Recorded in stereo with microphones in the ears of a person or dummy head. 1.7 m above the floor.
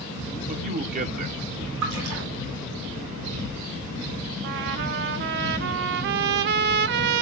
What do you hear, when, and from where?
0.5 s a man speaking: 40° right (ahead or behind), 1.1 m
1.8 s a splash: 70° right (ahead or behind), 5.5 m
4.4 s a trumpet: 60° right (ahead or behind), 0.6 m